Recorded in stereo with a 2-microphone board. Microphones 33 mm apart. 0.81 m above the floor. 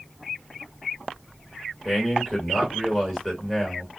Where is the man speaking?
10° left (ahead or behind), 1.4 m.